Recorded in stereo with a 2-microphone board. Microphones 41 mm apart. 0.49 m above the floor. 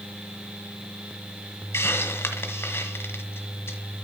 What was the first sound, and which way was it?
A hiss, 80° left.